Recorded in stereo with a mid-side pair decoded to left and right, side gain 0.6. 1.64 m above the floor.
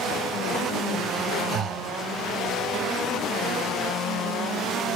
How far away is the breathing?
About 3 m.